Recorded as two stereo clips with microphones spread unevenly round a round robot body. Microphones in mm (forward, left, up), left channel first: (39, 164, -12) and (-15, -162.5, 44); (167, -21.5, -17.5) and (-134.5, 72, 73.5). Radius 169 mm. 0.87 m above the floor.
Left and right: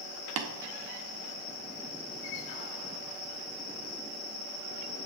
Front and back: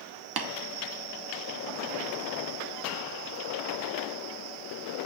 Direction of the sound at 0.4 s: 150° right.